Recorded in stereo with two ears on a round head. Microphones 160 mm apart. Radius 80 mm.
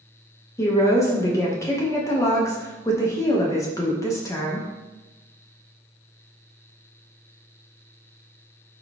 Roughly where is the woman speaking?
Centre.